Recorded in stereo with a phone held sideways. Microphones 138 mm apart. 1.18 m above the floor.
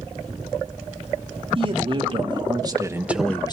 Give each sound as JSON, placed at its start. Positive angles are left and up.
{"t": 1.6, "sound": "a man speaking", "side_deg": -40, "distance_m": 3.0}